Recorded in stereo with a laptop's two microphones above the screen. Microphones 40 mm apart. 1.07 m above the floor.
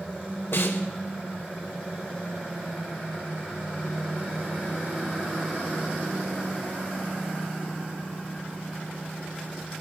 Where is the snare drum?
75° left (ahead or behind), 4 m.